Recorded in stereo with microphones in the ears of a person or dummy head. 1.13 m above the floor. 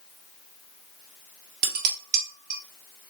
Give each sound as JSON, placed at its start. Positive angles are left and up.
{"t": 1.6, "sound": "dishes clattering", "side_deg": -45, "distance_m": 1.3}